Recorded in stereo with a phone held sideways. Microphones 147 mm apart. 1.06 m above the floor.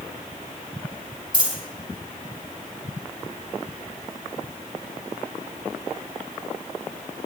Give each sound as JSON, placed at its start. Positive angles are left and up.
{"t": 1.3, "sound": "a dropped coin", "side_deg": -30, "distance_m": 4.0}